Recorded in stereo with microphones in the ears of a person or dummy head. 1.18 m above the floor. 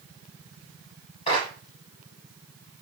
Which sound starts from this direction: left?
A clap, at 1.3 s.